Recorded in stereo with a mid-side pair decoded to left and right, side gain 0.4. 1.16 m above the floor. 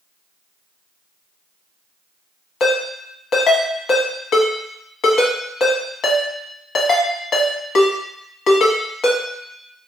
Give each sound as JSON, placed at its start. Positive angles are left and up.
{"t": 2.6, "sound": "a ringtone", "azimuth_deg": 65, "distance_m": 0.9}